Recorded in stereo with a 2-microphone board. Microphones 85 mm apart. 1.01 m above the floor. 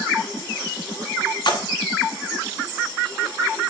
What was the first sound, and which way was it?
A splash, 60° left (ahead or behind).